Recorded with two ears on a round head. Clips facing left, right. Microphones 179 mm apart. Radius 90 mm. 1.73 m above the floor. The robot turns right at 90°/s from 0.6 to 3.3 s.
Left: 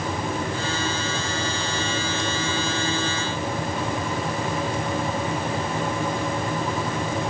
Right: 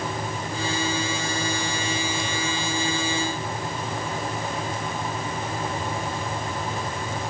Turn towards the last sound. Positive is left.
No sound to turn to.